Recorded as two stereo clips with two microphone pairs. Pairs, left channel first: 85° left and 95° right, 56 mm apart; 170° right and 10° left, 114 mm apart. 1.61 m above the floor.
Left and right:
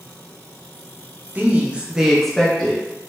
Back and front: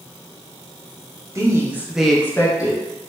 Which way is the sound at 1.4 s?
45° right.